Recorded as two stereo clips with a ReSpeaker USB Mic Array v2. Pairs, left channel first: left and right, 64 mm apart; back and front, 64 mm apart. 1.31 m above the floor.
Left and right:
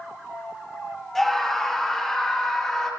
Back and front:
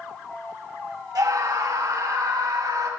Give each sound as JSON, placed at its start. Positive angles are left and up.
{"t": 1.1, "sound": "a scream", "azimuth_deg": 5, "distance_m": 2.5}